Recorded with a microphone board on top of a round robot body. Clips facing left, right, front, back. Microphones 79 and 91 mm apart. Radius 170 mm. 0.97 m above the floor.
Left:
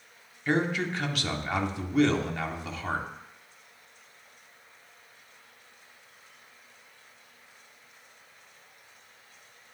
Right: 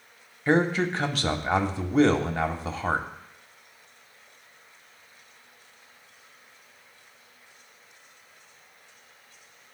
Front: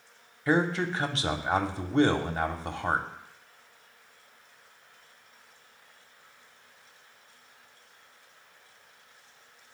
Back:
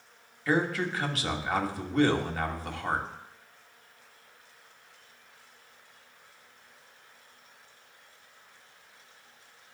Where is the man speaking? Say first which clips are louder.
Right 5 dB, front 2 dB; 50° right, 1.0 m.